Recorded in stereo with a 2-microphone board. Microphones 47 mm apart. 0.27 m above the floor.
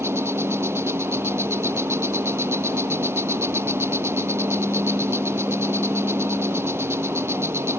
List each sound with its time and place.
0.0 s an insect: 65° right (ahead or behind)